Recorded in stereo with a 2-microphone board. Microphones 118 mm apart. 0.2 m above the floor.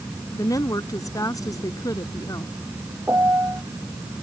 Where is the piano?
20° right (ahead or behind).